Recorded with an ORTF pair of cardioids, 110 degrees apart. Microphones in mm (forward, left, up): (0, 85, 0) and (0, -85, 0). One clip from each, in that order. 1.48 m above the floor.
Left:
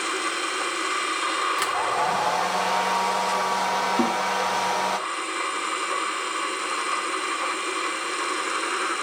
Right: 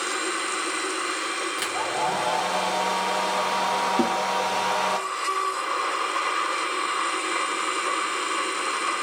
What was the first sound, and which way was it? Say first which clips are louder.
A hair dryer: left 3 dB; 15° left.